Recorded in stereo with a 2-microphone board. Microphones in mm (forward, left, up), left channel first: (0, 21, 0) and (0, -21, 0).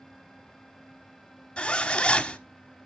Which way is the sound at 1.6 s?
25° left (ahead or behind).